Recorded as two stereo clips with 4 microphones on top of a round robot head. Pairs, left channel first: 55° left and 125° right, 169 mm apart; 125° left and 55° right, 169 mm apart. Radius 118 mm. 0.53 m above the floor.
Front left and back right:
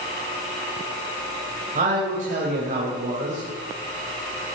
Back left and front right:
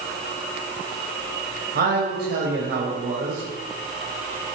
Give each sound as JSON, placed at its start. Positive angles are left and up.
{"t": 1.8, "sound": "a man speaking", "azimuth_deg": -85, "distance_m": 3.5}